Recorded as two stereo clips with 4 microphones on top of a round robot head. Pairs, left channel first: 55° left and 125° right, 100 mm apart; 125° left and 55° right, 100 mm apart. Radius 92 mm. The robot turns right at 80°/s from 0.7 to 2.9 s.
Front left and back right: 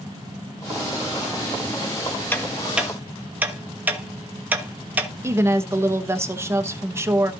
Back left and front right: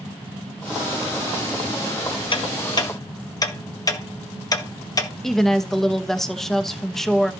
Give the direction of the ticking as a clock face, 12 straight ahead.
8 o'clock.